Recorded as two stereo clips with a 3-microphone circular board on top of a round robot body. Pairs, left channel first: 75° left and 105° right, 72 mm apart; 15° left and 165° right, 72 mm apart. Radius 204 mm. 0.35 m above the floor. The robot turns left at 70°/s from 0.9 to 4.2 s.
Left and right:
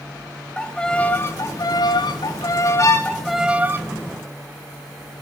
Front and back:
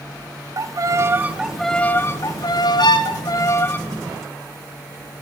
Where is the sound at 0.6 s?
150° left, 0.6 m; by 3.8 s 50° right, 0.6 m.